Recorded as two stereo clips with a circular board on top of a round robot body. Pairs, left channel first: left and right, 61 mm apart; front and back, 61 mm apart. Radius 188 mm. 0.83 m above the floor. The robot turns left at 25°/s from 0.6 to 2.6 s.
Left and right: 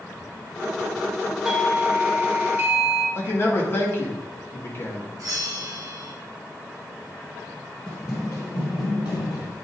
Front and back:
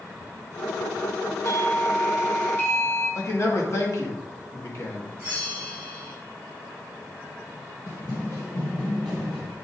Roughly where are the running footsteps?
Ahead left.